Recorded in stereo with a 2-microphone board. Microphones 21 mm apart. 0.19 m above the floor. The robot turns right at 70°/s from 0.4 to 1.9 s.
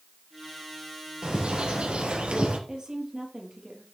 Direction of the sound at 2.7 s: 40° right (ahead or behind).